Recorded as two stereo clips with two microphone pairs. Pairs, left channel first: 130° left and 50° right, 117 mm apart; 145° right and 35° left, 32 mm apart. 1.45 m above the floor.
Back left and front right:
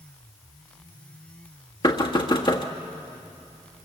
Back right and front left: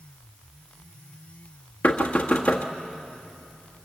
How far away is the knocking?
About 1.6 m.